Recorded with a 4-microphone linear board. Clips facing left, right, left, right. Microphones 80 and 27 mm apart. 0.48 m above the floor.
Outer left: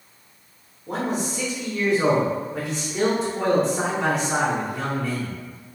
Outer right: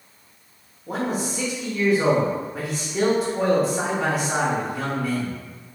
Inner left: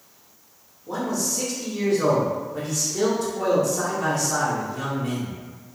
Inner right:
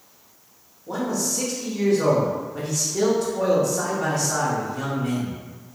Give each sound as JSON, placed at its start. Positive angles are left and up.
{"t": 0.9, "sound": "a man speaking", "side_deg": -5, "distance_m": 0.7}